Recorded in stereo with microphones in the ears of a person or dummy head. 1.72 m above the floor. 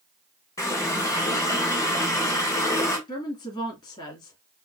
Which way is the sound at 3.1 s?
20° left (ahead or behind).